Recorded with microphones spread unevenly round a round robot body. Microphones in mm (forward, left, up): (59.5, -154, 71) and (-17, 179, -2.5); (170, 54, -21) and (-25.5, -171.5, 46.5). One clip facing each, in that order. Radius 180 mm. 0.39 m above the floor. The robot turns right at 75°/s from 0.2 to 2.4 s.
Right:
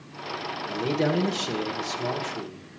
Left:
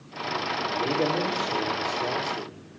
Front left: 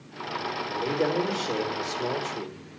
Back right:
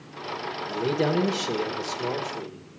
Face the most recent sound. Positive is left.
turn(degrees=-5)